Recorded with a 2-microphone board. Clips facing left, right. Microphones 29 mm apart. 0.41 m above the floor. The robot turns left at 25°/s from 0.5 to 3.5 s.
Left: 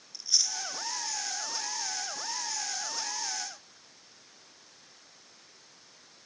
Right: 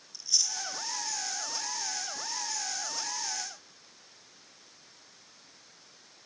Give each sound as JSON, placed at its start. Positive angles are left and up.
{"t": 0.1, "sound": "chewing", "side_deg": 25, "distance_m": 1.0}